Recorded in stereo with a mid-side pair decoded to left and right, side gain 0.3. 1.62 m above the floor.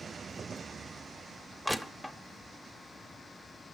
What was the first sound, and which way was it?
Crushing, 5° left.